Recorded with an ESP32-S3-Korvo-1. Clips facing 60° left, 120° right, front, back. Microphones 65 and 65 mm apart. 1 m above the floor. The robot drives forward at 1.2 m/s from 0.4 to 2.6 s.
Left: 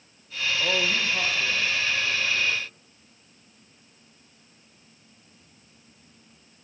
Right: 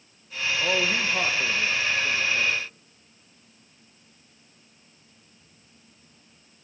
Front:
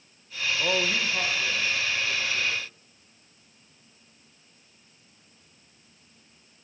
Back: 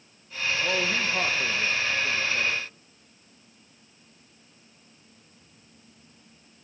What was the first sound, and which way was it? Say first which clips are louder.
A man speaking: right 1 dB, front 1 dB; 40° right.